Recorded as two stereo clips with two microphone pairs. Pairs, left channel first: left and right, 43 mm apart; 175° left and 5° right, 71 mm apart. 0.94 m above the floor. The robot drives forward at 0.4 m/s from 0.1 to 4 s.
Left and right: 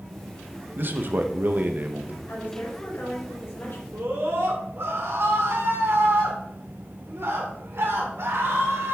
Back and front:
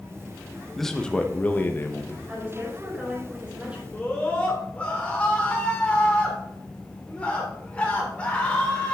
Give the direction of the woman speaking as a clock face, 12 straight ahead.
10 o'clock.